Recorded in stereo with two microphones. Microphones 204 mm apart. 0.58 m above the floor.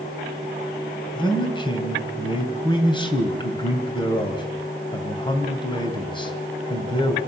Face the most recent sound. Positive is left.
turn(degrees=25)  # may be behind; listen again after turning